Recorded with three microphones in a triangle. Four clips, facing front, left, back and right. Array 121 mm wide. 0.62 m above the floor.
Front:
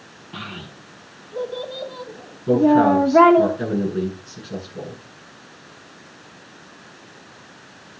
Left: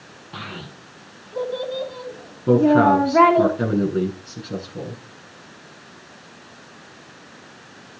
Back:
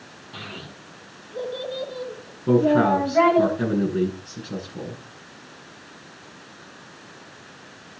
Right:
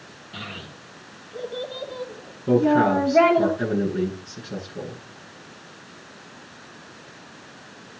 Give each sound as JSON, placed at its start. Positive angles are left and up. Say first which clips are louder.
{"t": 0.3, "sound": "a child speaking", "louder": "left 3 dB, front 4 dB", "azimuth_deg": 80, "distance_m": 3.0}
{"t": 2.5, "sound": "a man speaking", "louder": "left 4 dB, front 3 dB", "azimuth_deg": 115, "distance_m": 8.5}